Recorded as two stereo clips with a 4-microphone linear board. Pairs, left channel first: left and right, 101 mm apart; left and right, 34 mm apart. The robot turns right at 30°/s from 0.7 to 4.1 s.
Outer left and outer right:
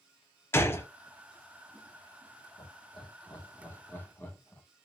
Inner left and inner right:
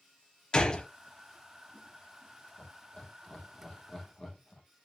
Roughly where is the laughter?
Left.